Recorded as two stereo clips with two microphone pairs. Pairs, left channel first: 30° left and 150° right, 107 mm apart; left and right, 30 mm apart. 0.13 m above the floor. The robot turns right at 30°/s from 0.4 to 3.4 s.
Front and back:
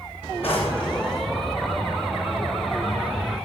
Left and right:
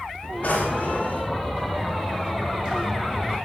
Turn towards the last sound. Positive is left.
turn(degrees=140)